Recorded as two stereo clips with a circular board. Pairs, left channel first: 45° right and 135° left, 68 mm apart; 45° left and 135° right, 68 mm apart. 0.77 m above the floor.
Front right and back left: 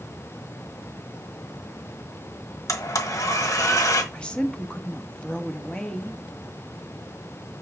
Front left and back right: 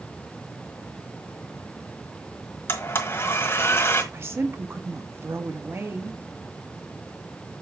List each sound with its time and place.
2.7 s a blender: 10° right, 1.4 m
4.1 s a woman speaking: 110° right, 1.2 m